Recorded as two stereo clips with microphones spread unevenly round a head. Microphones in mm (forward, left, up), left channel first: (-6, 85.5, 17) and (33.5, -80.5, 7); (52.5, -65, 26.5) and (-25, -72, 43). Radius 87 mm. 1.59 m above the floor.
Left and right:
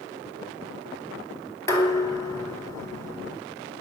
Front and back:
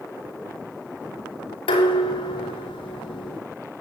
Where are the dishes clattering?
30° left, 4 m.